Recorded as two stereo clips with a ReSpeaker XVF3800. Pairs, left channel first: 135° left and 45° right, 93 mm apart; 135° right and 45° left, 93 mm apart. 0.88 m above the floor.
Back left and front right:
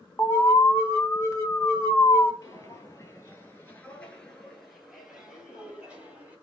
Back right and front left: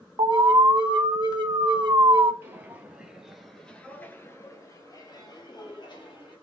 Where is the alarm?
75° left, 0.8 m.